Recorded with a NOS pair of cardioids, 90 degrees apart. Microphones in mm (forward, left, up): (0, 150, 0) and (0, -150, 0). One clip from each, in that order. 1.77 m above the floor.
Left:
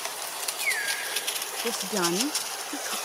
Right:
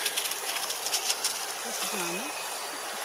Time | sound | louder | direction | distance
1.6 | a woman speaking | left 6 dB | 60° left | ?